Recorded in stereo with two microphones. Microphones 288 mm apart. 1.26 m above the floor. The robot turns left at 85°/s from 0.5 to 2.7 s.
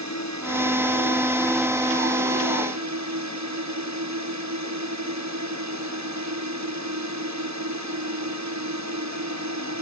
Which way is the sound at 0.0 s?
95° left.